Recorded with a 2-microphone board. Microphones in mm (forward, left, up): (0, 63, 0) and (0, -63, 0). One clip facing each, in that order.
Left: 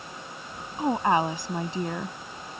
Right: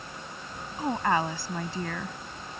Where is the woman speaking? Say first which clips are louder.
Left 3 dB; 20° left (ahead or behind).